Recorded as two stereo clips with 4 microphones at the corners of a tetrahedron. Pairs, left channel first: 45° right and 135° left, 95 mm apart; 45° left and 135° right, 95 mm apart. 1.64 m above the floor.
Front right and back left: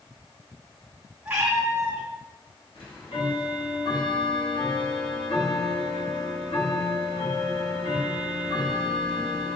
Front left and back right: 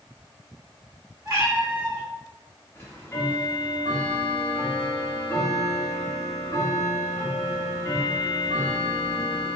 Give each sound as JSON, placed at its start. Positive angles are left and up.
{"t": 1.2, "sound": "a cat meowing", "azimuth_deg": -165, "distance_m": 1.1}
{"t": 2.8, "sound": "ticking", "azimuth_deg": -15, "distance_m": 0.9}